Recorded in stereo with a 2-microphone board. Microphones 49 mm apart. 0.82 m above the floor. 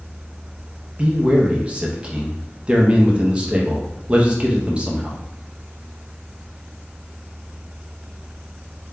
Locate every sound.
1.0 s a man speaking: 25° right (ahead or behind), 0.8 m